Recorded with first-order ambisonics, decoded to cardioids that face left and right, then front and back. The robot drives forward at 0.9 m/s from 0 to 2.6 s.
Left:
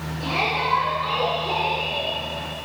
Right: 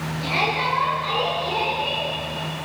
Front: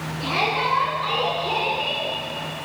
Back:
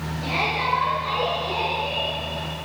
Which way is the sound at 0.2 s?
20° left.